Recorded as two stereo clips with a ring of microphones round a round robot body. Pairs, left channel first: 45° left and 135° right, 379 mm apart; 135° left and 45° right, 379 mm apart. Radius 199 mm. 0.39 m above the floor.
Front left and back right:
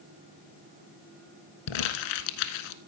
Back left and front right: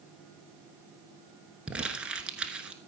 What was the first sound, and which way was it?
Crumpling, 40° left.